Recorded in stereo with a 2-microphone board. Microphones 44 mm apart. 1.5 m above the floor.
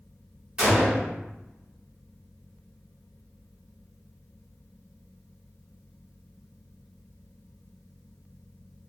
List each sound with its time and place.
0.6 s a gunshot: 20° right (ahead or behind), 1.1 m